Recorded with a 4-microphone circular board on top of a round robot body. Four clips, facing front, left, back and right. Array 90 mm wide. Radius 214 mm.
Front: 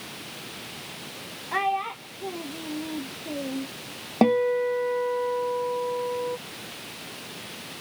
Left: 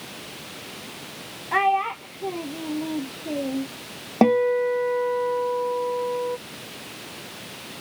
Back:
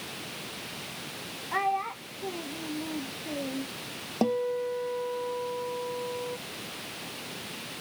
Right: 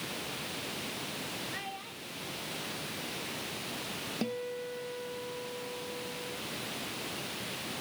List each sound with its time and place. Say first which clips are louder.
1.5 s a child speaking: left 21 dB, front 2 dB; 85° left
4.2 s a guitar: left 19 dB, front 7 dB; 65° left